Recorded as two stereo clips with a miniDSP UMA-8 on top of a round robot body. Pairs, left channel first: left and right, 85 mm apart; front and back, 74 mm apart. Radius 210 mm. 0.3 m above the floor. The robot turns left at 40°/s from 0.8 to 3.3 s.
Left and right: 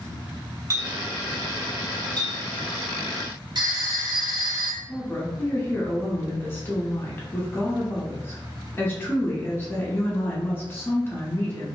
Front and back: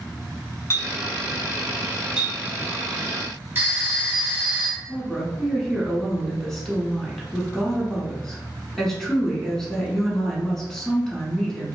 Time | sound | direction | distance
0.7 | a clink | 40° right | 1.3 m
3.5 | a phone ringing | 115° right | 1.2 m
4.9 | a woman speaking | 75° left | 1.3 m